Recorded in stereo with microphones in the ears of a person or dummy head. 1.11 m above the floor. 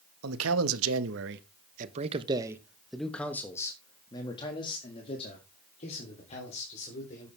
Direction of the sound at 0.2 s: 85° right.